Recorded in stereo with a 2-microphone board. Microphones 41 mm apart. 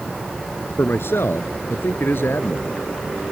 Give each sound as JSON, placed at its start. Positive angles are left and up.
{"t": 0.8, "sound": "a man speaking", "side_deg": 75}